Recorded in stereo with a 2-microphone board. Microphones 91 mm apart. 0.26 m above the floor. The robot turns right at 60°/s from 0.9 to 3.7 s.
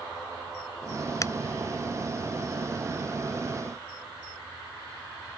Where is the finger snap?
35° left (ahead or behind); by 1.3 s 30° left (ahead or behind).